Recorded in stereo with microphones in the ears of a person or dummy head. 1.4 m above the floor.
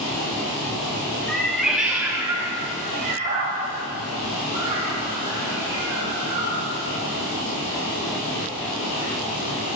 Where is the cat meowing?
Centre (ahead or behind), 1.3 m; by 6.7 s 30° right (ahead or behind), 3 m.